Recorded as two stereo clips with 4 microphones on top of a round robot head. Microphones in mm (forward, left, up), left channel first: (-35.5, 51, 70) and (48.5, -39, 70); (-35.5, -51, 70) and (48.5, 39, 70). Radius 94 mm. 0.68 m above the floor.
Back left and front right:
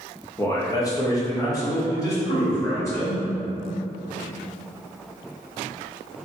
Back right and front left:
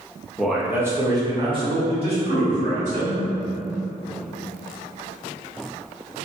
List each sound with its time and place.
0.4 s a man speaking: 145° left, 0.8 m; by 3.2 s 65° left, 2 m